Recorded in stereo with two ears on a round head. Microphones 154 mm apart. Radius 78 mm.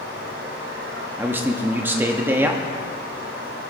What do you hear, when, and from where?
0.0 s running water: 85° right, 2.5 m
1.2 s a man speaking: 10° right (ahead or behind), 0.9 m